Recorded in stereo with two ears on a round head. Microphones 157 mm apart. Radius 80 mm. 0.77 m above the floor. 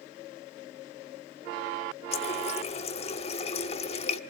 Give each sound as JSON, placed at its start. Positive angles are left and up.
{"t": 2.1, "sound": "a running tap", "side_deg": 35, "distance_m": 1.2}